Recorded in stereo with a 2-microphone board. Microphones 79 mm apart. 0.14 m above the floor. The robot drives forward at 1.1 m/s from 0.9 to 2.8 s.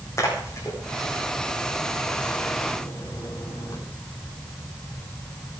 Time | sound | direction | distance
0.2 | a splash | 40° left (ahead or behind) | 9 m